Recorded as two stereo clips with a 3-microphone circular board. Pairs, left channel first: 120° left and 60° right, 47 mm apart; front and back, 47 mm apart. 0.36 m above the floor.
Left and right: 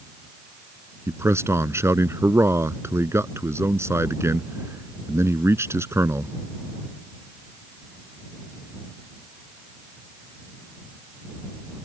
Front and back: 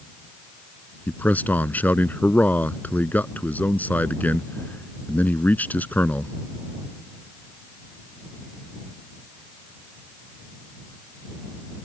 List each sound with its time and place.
1.1 s a man speaking: 50° right